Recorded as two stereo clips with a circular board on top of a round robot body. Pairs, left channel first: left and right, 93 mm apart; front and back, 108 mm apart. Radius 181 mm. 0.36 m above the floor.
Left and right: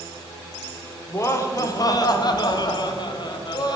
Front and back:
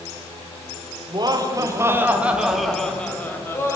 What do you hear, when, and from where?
1.1 s laughter: 145° left, 2 m; by 3.8 s 60° left, 2.5 m